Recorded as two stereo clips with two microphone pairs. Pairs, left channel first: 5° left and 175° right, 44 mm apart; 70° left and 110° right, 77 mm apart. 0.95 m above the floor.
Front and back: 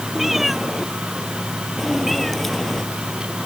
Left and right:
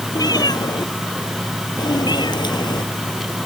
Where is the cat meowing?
100° left; by 2.8 s 90° left.